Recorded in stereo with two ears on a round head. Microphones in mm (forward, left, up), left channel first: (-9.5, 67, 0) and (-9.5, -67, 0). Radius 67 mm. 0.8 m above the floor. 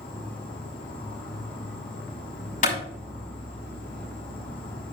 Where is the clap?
55° left (ahead or behind), 5.5 m.